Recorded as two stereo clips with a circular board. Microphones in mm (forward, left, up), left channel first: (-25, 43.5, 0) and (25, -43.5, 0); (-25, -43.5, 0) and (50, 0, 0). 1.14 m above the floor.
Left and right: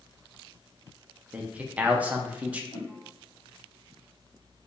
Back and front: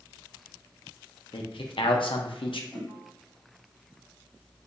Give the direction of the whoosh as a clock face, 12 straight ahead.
7 o'clock.